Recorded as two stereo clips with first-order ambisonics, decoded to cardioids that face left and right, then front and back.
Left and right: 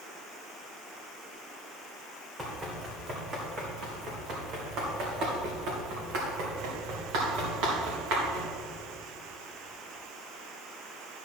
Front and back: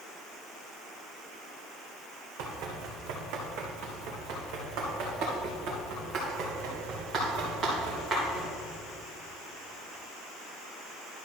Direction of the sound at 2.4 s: 165° right.